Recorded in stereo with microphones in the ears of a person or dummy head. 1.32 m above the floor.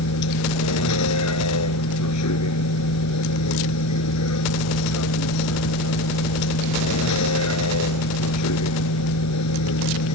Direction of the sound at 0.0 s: 85° left.